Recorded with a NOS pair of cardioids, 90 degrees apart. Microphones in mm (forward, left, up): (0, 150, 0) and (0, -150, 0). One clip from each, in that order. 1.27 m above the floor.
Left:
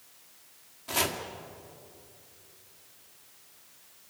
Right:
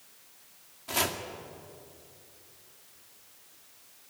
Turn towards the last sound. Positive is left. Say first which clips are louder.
# even
turn(degrees=5)